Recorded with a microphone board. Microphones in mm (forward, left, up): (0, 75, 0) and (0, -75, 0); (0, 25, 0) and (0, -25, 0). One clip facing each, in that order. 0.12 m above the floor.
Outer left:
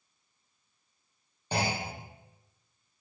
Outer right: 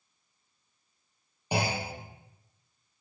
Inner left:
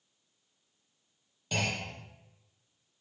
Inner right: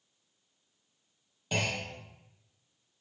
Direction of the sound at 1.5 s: 15° right (ahead or behind).